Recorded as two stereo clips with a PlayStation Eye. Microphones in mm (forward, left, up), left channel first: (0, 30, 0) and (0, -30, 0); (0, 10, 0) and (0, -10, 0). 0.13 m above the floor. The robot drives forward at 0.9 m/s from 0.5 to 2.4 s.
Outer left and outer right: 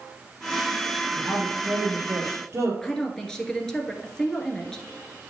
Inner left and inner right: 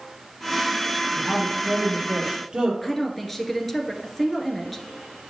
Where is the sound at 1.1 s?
60° right (ahead or behind), 3.5 m; by 2.7 s 50° right (ahead or behind), 3.5 m.